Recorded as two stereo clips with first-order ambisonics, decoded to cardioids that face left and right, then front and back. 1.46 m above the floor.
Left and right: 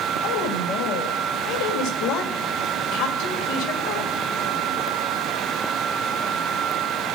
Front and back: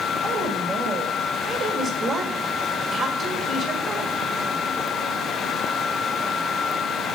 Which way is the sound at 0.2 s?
105° left.